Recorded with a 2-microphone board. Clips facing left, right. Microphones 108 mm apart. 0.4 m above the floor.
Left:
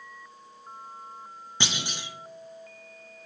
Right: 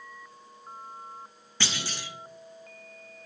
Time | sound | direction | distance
1.6 | a clunk | 20° left (ahead or behind) | 0.6 m